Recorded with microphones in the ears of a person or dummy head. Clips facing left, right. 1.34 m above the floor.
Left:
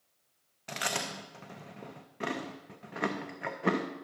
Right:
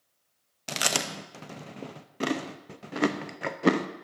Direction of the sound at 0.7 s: 50° right (ahead or behind).